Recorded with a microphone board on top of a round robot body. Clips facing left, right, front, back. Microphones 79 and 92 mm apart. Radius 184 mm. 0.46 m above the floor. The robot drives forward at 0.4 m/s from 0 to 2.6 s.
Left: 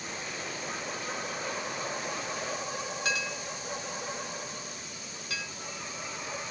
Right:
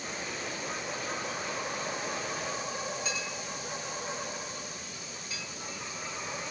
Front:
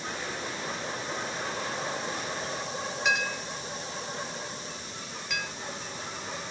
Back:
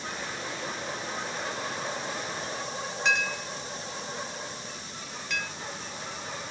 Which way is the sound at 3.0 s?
85° left.